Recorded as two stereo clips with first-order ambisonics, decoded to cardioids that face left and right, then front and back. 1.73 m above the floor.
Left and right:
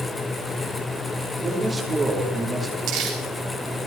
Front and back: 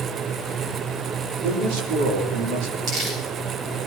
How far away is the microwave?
No microwave in this recording.